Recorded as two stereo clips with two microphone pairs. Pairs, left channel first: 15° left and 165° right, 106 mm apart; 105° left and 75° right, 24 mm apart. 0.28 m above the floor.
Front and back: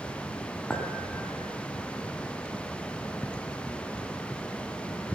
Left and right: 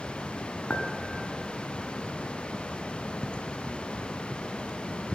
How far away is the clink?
About 1.1 m.